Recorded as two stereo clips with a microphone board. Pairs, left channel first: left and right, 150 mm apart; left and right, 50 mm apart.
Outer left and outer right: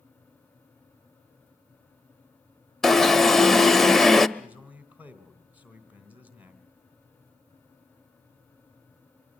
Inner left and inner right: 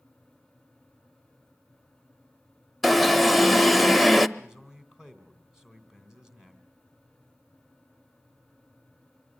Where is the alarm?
Centre (ahead or behind), 0.6 m.